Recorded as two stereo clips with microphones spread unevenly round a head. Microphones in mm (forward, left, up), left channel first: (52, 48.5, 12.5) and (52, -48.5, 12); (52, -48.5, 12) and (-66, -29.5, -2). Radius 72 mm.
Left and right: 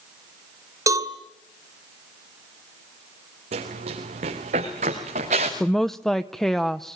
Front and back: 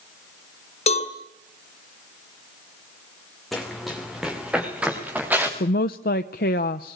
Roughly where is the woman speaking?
Ahead.